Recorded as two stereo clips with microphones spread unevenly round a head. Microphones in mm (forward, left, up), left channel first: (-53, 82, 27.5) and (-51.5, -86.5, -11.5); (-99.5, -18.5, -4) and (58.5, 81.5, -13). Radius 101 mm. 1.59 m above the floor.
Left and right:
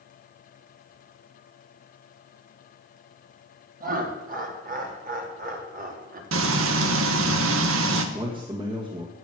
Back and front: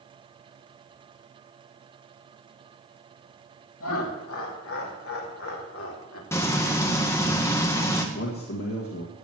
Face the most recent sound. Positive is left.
turn(degrees=-150)